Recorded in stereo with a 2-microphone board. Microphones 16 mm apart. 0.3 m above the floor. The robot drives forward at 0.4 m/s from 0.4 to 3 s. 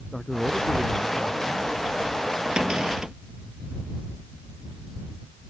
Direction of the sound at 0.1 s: 15° left (ahead or behind).